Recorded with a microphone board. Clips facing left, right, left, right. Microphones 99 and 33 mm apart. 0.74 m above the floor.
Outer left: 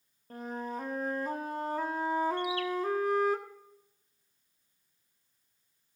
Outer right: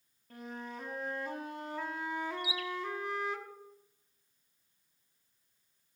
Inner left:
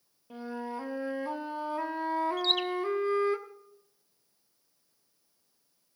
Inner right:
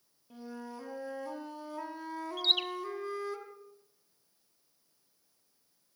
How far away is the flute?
About 1.1 m.